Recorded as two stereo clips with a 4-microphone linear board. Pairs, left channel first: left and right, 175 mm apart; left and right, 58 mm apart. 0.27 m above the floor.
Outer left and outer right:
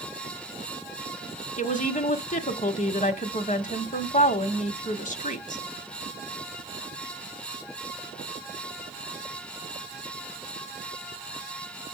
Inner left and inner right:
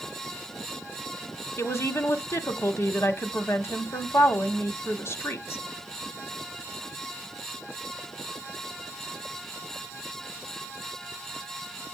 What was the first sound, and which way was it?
A woman speaking, 45° left (ahead or behind).